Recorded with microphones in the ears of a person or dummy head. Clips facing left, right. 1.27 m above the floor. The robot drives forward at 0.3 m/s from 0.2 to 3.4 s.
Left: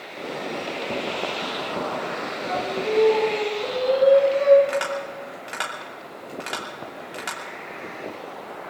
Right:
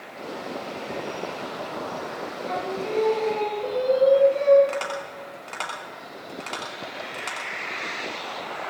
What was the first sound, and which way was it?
Singing, centre (ahead or behind).